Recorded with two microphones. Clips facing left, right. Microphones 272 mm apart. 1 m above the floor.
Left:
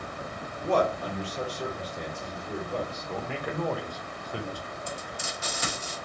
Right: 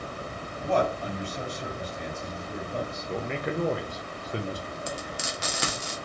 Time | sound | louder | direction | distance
0.6 | a man speaking | left 1 dB | 75° left (ahead or behind) | 2 m
3.1 | a man speaking | right 6 dB | 25° right (ahead or behind) | 0.7 m
4.9 | frying | right 3 dB | 80° right | 1.0 m